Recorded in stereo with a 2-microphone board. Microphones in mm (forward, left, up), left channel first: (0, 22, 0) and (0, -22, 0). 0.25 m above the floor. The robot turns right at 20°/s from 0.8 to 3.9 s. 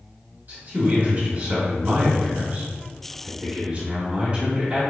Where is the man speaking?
95° right, 2.0 m; by 4.8 s 35° right, 2.0 m.